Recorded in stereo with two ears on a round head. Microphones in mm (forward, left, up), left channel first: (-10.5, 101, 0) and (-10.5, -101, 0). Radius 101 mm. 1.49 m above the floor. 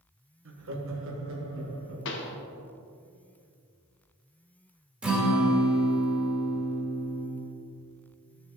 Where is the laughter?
60° right (ahead or behind), 1.3 m.